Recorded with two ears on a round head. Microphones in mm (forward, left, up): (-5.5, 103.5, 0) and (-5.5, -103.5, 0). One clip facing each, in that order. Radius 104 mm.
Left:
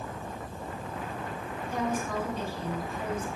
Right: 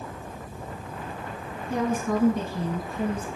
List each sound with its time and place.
1.7 s a woman speaking: 60° right (ahead or behind), 5.5 m; by 3.3 s 40° right (ahead or behind), 6.5 m